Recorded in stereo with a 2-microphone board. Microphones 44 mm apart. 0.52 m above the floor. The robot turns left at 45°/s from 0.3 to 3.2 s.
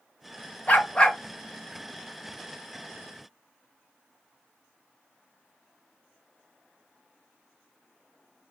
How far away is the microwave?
No microwave in this recording.